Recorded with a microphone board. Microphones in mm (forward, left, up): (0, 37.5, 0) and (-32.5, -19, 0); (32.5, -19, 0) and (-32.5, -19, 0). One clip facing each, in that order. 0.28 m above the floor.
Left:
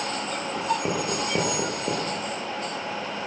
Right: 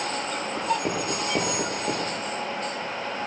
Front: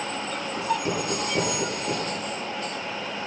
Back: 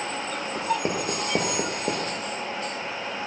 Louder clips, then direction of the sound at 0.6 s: Left 1 dB, even; 145° left.